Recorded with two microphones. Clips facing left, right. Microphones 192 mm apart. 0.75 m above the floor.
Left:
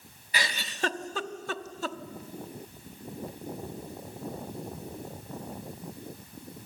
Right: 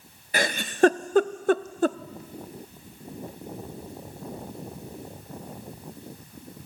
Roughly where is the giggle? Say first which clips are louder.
Right 11 dB; right.